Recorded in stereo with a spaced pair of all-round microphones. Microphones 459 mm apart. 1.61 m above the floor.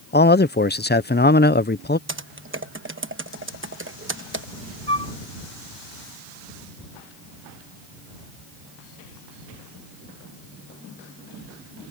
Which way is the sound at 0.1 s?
20° left (ahead or behind).